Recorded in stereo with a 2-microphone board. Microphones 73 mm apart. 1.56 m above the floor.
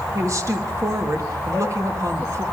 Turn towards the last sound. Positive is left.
turn(degrees=-45)  # may be behind; listen again after turning